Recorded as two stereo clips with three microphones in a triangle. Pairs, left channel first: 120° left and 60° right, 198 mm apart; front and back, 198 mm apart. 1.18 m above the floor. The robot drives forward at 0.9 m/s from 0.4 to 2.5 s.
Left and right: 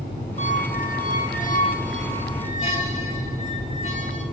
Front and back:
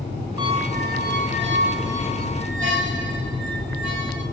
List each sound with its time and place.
0.4 s a squeak: 125° left, 0.6 m; by 4.2 s 170° left, 2 m